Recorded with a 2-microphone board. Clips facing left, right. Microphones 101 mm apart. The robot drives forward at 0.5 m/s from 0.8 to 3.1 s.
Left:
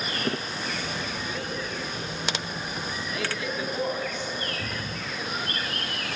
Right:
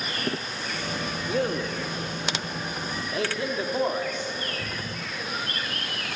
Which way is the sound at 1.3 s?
50° right (ahead or behind).